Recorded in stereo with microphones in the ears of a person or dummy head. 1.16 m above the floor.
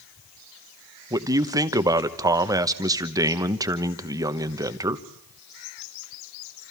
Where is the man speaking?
15° right (ahead or behind), 1.0 m.